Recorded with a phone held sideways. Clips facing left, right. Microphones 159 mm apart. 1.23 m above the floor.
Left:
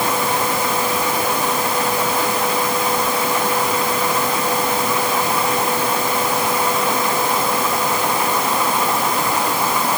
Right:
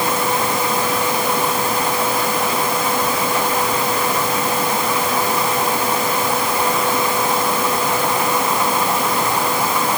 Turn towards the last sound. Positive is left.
No sound to turn to.